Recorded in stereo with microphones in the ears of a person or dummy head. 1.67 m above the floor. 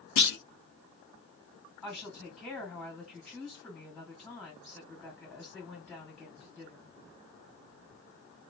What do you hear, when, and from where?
0.2 s a clunk: 60° left (ahead or behind), 0.7 m
1.8 s a woman speaking: 5° left (ahead or behind), 2.5 m